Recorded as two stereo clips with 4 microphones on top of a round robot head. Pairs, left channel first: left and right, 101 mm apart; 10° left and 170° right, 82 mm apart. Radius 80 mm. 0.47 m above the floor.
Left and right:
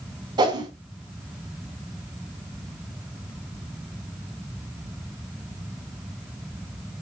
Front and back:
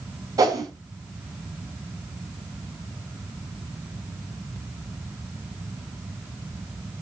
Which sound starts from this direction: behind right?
A whoosh, at 0.4 s.